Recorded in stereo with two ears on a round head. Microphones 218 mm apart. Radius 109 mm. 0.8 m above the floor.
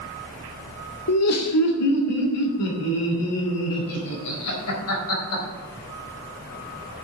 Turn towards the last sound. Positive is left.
turn(degrees=75)  # may be behind; listen again after turning